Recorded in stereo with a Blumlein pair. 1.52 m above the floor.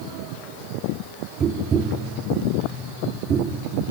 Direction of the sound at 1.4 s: 20° right.